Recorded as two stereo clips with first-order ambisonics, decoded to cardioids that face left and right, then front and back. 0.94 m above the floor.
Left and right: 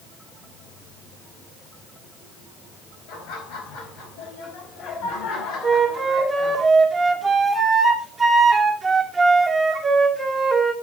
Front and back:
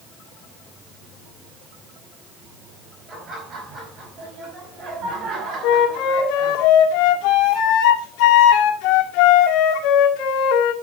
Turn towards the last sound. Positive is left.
turn(degrees=-10)